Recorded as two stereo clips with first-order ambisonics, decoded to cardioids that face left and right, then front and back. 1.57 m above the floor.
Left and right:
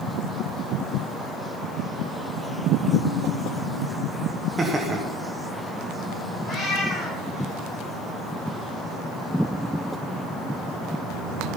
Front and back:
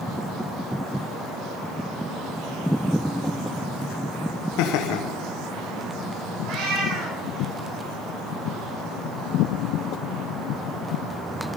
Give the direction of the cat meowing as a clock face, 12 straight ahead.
6 o'clock.